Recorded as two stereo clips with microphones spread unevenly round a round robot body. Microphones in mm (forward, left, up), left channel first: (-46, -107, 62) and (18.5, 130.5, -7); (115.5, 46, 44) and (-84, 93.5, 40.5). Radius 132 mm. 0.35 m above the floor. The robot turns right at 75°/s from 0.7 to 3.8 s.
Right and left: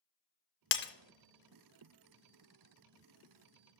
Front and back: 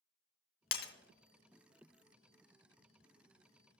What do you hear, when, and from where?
0.7 s breaking glass: 60° right, 0.7 m; by 0.9 s 45° right, 0.7 m